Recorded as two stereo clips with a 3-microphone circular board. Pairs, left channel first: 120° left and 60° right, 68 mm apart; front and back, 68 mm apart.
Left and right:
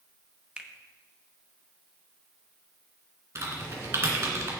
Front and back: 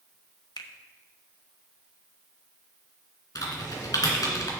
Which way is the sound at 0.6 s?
15° left.